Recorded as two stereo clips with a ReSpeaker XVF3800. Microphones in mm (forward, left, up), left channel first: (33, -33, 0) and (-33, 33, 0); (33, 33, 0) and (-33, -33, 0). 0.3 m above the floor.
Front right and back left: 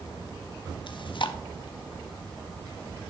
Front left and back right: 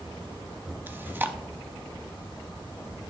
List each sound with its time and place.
0.9 s chewing: 70° right, 0.6 m